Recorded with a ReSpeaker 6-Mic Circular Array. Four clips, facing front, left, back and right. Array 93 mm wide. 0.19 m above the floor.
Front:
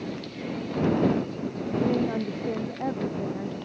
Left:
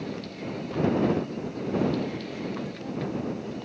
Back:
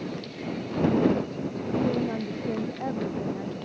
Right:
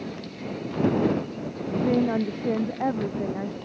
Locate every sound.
1.8 s a woman speaking: 80° right; by 3.5 s 90° right